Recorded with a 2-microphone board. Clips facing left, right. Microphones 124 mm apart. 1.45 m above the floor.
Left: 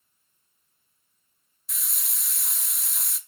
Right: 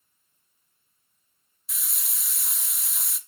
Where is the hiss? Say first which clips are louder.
Even; centre (ahead or behind), 0.6 m.